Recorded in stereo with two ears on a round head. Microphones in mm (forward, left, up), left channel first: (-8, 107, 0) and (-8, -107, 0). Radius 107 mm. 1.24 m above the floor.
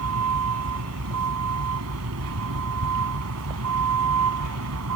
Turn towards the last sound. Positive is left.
turn(degrees=-65)  # may be behind; listen again after turning